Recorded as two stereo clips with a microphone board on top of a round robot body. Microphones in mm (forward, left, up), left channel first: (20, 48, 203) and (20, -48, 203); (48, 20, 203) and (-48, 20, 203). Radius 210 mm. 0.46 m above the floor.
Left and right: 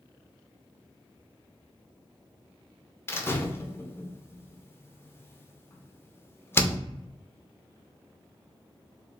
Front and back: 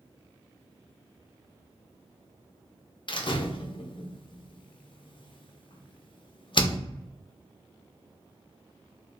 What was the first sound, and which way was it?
A door slam, 25° left.